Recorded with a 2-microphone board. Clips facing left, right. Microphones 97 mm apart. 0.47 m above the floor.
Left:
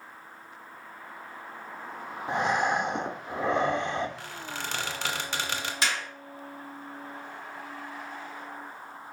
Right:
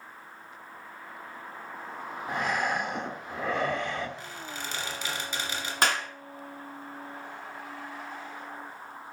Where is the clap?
50° right (ahead or behind), 0.7 m.